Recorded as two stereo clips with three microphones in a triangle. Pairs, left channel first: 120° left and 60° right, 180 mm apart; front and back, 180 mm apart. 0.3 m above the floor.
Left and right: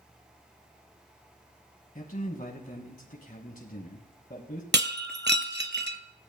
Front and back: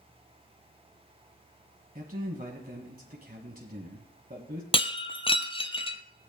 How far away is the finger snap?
No finger snap in this recording.